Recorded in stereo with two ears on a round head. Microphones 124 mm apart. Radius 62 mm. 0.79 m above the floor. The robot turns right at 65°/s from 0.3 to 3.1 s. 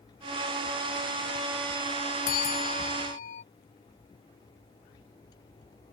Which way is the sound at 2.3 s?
65° left.